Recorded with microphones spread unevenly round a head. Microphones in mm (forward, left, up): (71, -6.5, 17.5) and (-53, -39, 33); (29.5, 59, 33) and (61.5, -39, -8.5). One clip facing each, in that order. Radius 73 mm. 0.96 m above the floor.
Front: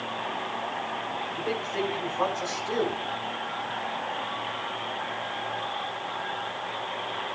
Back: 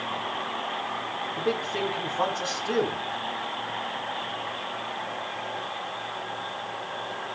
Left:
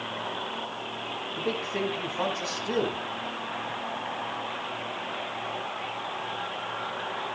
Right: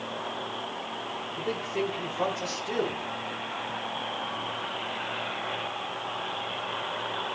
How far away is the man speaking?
About 4.5 m.